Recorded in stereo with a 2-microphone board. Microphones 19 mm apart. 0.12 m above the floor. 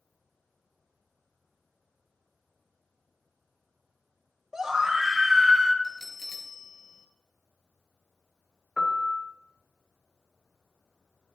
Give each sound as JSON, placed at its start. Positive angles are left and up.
{"t": 4.5, "sound": "a scream", "side_deg": -30, "distance_m": 3.0}
{"t": 5.8, "sound": "a bell", "side_deg": 5, "distance_m": 1.6}
{"t": 8.8, "sound": "a piano", "side_deg": 20, "distance_m": 1.3}